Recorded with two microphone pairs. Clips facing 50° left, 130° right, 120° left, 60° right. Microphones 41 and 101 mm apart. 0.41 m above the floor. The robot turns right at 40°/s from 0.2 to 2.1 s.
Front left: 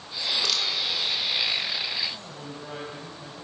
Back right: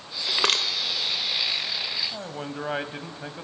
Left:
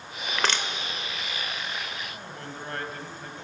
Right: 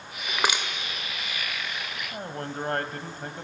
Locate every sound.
0.3 s crushing: 140° right, 2.0 m; by 0.7 s 125° right, 2.0 m
2.1 s a man speaking: 90° right, 2.5 m